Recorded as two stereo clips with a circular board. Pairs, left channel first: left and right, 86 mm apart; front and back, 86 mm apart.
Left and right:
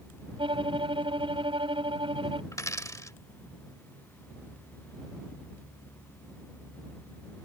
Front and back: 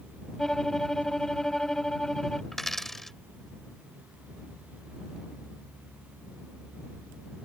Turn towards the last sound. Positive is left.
turn(degrees=80)